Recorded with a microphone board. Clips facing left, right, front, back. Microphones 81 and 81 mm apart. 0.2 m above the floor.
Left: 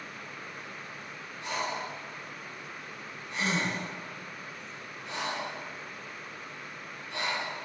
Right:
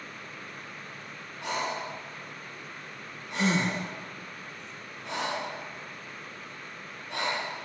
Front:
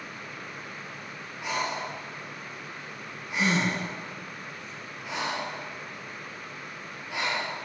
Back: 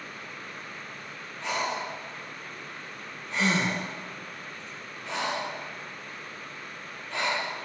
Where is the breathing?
80° right, 3.5 m.